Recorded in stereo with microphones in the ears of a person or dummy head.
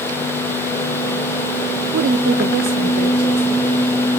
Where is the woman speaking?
50° right (ahead or behind), 0.5 m; by 3.7 s 30° right (ahead or behind), 1.2 m.